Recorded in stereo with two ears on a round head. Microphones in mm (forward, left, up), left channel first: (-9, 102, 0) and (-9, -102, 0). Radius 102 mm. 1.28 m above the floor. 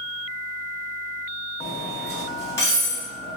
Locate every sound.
1.6 s cutlery clinking: 15° left (ahead or behind), 1.1 m